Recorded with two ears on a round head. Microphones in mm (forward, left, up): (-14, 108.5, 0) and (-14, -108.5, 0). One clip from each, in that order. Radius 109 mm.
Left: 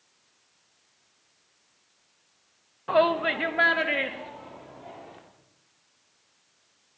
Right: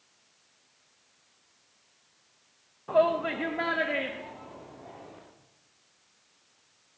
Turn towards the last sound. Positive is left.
turn(degrees=30)  # may be behind; listen again after turning